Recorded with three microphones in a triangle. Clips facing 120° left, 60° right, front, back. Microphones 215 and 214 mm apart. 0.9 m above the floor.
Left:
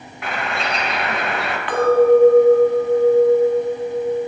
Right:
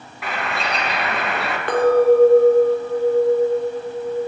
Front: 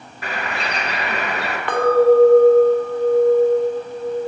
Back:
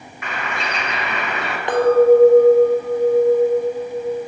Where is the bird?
30° left, 1.1 m.